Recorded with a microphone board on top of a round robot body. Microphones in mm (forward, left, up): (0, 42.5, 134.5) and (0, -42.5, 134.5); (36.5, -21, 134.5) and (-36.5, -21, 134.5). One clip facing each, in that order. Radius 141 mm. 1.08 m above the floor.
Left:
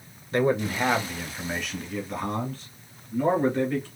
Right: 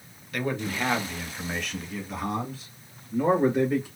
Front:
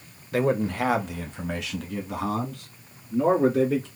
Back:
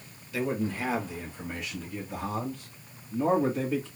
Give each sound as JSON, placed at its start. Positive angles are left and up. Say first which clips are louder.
{"t": 0.3, "sound": "a man speaking", "louder": "left 6 dB, front 6 dB", "azimuth_deg": 35, "distance_m": 0.8}